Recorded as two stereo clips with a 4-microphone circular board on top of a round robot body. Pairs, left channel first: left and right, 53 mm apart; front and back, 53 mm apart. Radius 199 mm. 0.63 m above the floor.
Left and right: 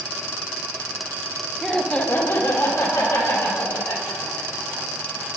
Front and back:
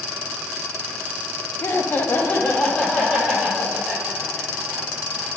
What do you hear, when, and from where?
1.6 s laughter: straight ahead, 0.9 m; by 5.3 s 95° left, 4 m